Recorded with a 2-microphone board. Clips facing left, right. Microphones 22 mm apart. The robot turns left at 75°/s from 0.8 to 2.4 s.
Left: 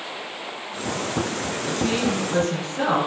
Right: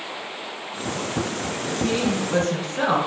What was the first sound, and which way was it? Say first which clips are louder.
A woman speaking: even; 40° left.